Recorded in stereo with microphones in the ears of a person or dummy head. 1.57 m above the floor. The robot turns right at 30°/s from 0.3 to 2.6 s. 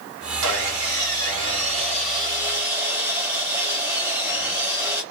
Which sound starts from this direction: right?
Sawing, at 0.4 s.